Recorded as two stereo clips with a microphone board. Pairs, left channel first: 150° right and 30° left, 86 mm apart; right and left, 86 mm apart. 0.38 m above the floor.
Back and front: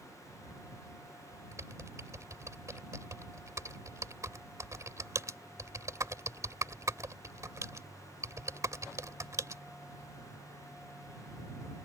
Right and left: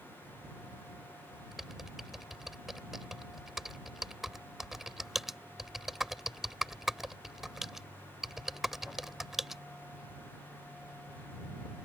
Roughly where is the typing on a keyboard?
Ahead.